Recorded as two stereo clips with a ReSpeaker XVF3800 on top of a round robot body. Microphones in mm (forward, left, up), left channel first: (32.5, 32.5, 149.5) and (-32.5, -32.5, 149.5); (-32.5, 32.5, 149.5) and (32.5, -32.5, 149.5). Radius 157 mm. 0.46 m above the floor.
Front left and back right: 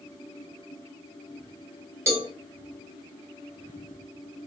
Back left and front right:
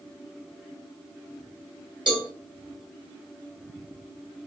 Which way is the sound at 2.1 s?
75° right.